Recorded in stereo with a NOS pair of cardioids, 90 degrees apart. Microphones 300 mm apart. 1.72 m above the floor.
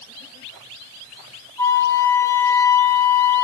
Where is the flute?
10° left, 4.5 m.